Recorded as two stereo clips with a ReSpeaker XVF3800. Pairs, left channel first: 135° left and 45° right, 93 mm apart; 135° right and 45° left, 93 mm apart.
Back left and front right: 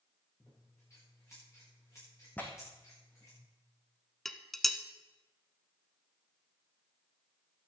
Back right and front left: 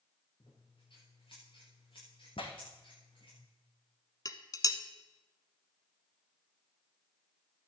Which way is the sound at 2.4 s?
155° right.